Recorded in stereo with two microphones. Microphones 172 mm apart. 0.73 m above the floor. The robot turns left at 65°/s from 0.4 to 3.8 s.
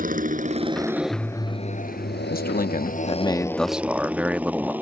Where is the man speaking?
90° left; by 4.7 s 10° right.